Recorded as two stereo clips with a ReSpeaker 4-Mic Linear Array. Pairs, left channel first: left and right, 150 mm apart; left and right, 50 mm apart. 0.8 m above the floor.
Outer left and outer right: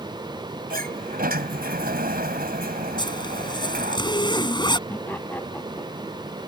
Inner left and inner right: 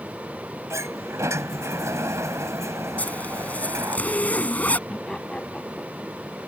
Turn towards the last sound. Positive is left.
turn(degrees=10)  # may be behind; listen again after turning